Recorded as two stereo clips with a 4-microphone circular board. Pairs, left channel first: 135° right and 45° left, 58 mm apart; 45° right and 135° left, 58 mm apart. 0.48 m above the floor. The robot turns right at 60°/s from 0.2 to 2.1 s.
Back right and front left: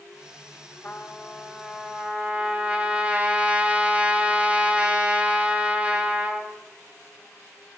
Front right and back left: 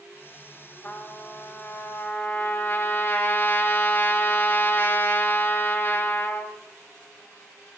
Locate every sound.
0.8 s a trumpet: 95° right, 1.7 m; by 6.5 s 20° right, 1.7 m